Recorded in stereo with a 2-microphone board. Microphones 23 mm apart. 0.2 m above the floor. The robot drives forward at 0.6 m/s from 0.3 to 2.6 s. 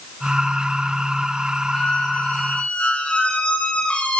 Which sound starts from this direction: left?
A squeak, at 1.7 s.